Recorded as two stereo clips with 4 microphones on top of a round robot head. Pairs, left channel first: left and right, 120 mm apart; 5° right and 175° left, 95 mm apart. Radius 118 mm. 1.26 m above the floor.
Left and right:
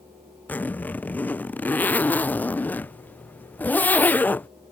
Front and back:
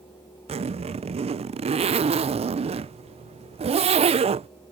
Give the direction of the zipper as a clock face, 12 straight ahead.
6 o'clock.